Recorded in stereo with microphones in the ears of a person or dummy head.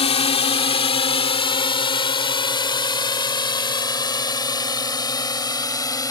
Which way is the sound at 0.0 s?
35° left (ahead or behind).